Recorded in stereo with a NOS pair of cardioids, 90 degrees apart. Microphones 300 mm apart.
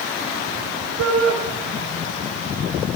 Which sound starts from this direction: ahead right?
A shout, at 1.0 s.